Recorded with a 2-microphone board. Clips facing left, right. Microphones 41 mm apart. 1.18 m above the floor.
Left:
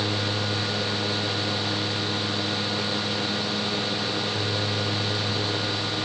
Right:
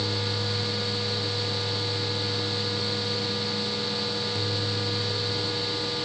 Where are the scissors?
I don't hear scissors.